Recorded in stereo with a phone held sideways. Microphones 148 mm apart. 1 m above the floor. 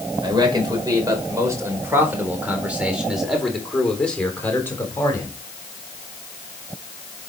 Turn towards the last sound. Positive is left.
turn(degrees=20)  # may be behind; listen again after turning